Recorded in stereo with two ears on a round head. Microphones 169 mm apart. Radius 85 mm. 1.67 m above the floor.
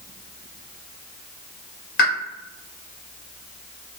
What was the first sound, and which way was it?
A pop, 50° left (ahead or behind).